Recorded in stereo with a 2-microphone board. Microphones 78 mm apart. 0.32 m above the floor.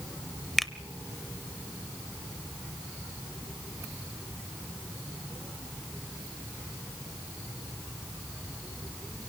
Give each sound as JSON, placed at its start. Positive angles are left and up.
{"t": 0.6, "sound": "a finger snap", "side_deg": 5, "distance_m": 0.7}